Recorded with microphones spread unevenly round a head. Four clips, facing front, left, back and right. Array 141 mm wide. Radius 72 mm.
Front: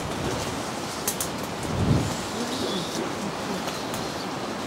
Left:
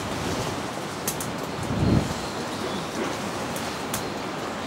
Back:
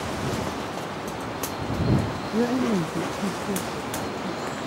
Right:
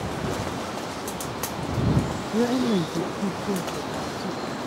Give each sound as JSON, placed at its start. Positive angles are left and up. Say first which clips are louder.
{"t": 2.3, "sound": "a woman speaking", "louder": "right 8 dB, back 9 dB", "azimuth_deg": -135}